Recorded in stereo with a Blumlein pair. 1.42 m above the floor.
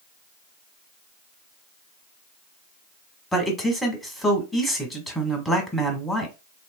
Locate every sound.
3.3 s a man speaking: 5° left, 1.3 m